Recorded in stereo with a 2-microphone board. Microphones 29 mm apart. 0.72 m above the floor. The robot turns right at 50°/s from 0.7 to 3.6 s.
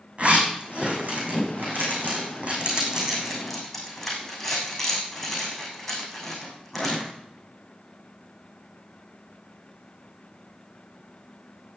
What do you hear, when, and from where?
0.2 s a zipper: 45° right (ahead or behind), 7.5 m; by 7.1 s 10° left (ahead or behind), 7.5 m